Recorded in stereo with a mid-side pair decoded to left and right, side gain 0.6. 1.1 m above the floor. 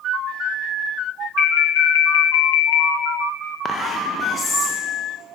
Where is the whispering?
35° left, 0.6 m.